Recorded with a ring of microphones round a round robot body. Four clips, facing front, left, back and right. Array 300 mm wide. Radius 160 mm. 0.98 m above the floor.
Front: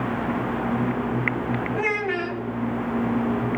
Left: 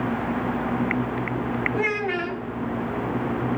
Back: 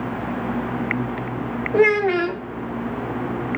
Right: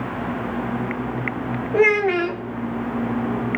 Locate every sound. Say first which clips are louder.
1.7 s a child speaking: right 8 dB, back 8 dB; 140° right, 0.5 m